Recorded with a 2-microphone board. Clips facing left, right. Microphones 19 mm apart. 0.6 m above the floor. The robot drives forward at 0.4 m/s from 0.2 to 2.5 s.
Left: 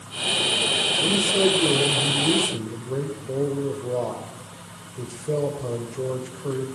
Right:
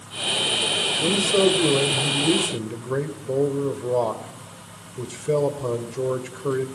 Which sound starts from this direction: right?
A man speaking, at 1.0 s.